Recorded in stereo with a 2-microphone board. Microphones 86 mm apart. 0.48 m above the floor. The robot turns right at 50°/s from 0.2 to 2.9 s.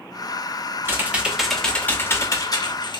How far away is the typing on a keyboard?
About 0.6 m.